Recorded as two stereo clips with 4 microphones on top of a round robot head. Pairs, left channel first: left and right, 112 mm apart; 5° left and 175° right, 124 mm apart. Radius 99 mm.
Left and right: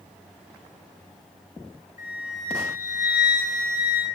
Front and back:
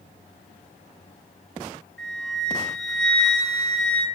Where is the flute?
90° left, 4 m.